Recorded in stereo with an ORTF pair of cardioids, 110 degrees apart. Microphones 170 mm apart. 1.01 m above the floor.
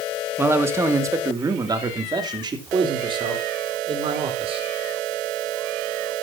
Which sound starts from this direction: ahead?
A man speaking, at 0.4 s.